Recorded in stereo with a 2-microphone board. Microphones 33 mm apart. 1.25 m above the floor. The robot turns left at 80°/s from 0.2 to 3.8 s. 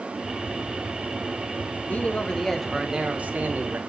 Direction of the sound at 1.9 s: 60° left.